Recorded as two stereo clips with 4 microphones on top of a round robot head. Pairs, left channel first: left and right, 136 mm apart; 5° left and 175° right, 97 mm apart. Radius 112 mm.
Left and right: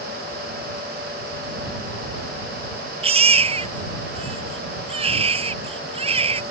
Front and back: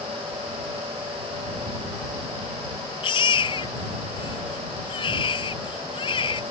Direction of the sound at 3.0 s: 45° right.